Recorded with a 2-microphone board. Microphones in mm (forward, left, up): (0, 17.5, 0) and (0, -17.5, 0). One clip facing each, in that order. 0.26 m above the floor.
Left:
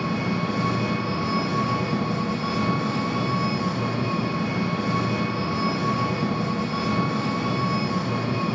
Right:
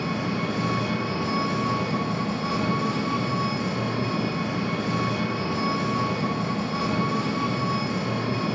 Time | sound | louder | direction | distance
0.0 | an engine running | left 2 dB | 10° left (ahead or behind) | 1.1 m